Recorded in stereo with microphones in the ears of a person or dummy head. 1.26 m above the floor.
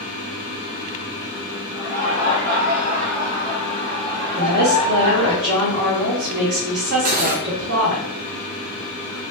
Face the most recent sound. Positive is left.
turn(degrees=-50)  # may be behind; listen again after turning